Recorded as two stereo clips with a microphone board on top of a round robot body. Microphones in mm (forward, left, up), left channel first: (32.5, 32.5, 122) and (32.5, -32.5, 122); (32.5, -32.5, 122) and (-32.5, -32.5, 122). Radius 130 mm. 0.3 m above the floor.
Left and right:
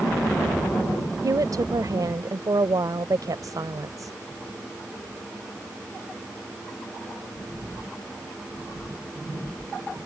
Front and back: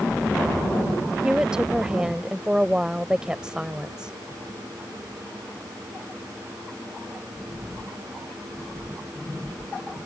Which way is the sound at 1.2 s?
105° right.